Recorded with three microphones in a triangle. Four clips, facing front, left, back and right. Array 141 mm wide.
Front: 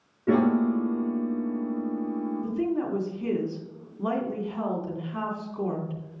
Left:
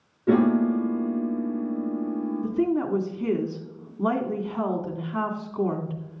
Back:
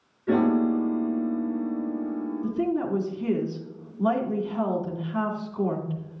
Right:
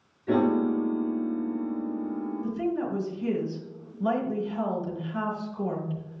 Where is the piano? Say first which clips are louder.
Left 3 dB, back 1 dB; 50° left, 5 m.